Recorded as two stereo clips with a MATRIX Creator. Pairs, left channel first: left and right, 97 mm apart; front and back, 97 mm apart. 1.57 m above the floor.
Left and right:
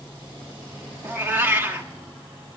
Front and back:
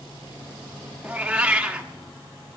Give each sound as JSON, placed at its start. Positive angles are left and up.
{"t": 1.0, "sound": "a cat meowing", "azimuth_deg": -115, "distance_m": 1.1}